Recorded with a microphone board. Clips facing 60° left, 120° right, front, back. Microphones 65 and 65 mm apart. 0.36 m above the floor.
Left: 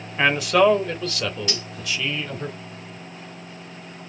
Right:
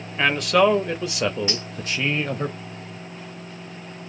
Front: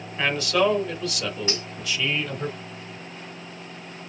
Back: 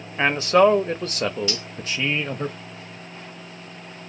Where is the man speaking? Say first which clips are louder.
Left 1 dB, back 6 dB; 135° left, 1.2 m; by 2.5 s 135° right, 1.3 m.